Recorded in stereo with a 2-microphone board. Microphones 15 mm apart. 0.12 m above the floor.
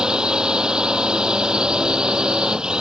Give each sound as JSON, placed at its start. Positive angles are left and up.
{"t": 0.0, "sound": "a drone", "side_deg": -60}